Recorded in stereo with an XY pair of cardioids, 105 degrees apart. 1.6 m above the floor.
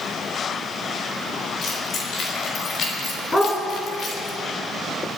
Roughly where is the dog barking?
Ahead.